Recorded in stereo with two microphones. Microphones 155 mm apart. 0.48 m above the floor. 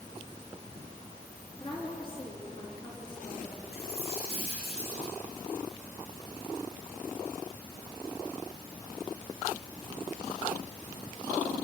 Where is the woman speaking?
35° left (ahead or behind), 5.5 m.